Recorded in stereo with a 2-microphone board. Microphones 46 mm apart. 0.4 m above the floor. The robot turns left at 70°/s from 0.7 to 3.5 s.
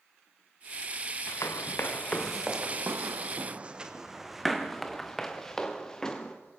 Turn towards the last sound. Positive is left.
turn(degrees=15)  # may be behind; listen again after turning